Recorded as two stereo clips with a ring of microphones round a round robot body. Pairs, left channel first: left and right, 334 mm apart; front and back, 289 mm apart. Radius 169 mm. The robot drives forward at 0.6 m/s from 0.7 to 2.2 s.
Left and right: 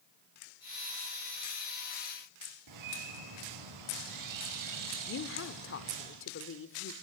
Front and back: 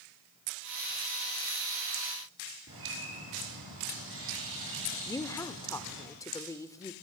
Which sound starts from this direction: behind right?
A bird, at 2.7 s.